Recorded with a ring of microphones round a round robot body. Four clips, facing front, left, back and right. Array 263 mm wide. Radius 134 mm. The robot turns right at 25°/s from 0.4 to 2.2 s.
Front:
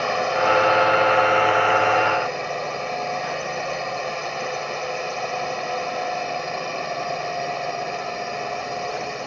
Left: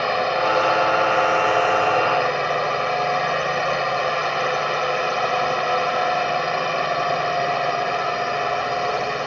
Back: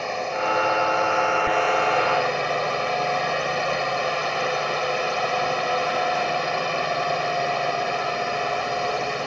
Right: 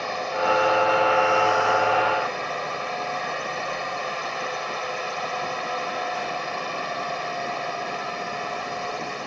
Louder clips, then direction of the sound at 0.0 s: Left 5 dB, front 5 dB; 60° left.